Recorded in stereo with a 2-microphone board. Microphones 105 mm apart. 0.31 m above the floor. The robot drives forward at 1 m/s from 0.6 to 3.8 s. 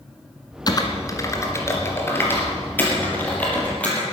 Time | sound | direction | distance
0.7 | typing on a keyboard | 40° left (ahead or behind) | 1.7 m